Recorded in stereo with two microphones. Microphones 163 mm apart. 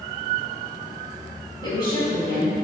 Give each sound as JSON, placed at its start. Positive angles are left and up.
{"t": 1.6, "sound": "a woman speaking", "side_deg": 25, "distance_m": 1.6}